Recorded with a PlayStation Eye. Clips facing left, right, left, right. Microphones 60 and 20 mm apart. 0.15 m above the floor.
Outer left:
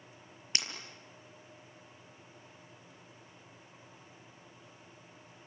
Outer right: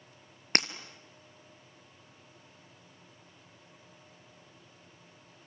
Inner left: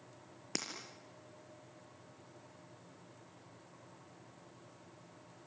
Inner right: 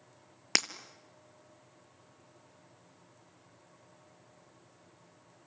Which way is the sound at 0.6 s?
55° right (ahead or behind).